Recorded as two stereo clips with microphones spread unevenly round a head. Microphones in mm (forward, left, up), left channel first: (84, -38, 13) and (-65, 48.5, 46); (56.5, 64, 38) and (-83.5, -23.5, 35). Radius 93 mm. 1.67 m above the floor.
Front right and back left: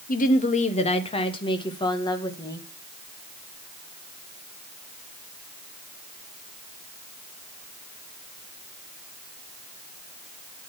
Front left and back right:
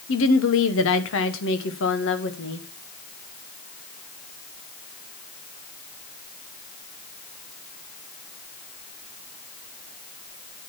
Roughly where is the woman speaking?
Ahead.